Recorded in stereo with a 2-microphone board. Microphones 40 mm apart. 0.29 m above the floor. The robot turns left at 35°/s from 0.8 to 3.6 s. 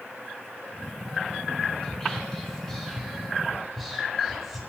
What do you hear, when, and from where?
1.8 s whispering: 20° left (ahead or behind), 0.9 m; by 4.6 s centre (ahead or behind), 0.9 m